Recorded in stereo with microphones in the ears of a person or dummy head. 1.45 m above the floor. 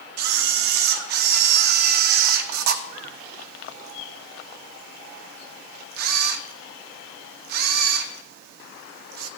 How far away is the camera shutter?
About 0.8 m.